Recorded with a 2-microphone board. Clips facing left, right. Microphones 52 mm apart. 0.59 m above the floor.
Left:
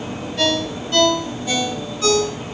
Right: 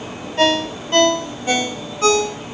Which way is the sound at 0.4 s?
35° right (ahead or behind).